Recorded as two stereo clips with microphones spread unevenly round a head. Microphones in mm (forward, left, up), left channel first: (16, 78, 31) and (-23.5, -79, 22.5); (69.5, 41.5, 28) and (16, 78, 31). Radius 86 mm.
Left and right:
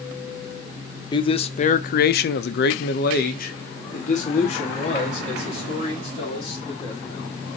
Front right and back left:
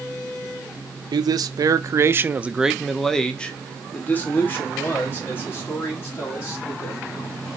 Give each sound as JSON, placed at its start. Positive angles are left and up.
{"t": 1.1, "sound": "a man speaking", "azimuth_deg": 140, "distance_m": 0.8}